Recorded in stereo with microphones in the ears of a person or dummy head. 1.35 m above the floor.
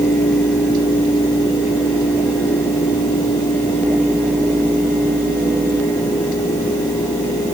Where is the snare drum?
I don't hear a snare drum.